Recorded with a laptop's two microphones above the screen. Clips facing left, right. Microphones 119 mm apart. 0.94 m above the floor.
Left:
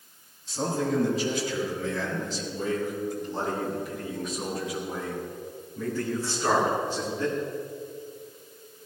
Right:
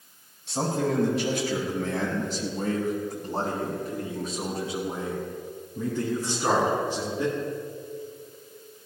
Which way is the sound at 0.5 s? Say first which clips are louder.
Right 1 dB; 90° right.